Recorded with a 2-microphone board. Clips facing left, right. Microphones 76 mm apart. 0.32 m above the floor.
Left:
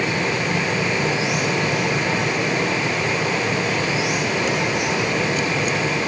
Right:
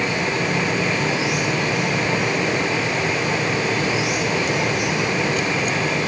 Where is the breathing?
I don't hear breathing.